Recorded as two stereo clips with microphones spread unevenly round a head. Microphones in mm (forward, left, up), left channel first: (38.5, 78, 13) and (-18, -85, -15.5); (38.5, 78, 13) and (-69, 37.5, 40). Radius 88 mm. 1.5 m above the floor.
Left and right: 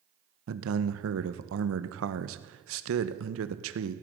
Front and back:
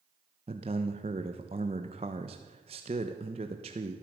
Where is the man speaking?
105° right, 1.2 m.